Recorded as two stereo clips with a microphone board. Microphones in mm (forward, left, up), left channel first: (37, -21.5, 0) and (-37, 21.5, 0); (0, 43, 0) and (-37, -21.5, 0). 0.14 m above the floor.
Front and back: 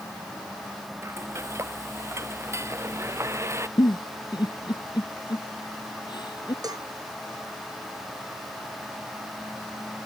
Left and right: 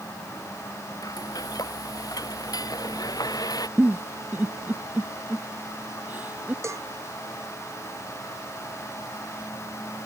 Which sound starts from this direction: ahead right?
A giggle, at 3.8 s.